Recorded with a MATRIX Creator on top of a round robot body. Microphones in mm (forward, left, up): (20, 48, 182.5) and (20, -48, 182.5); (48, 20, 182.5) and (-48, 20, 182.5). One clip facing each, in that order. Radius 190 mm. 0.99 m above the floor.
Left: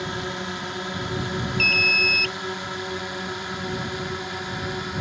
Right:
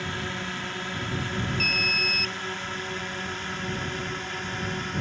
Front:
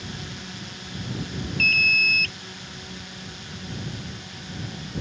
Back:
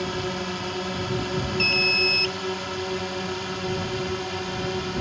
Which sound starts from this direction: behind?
A drone, at 0.0 s.